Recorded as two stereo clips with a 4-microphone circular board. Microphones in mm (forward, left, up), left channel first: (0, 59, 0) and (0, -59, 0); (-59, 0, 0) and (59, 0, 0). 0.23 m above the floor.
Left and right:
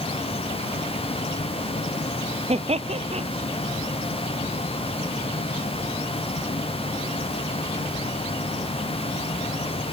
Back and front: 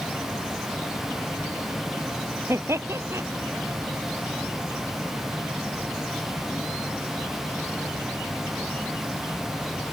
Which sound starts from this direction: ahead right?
Laughter, at 2.5 s.